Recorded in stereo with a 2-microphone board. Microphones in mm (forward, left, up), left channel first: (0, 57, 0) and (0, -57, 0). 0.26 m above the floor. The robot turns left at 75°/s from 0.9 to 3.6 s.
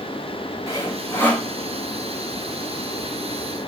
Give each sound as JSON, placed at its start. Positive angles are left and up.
{"t": 0.7, "sound": "sawing", "azimuth_deg": 60, "distance_m": 1.8}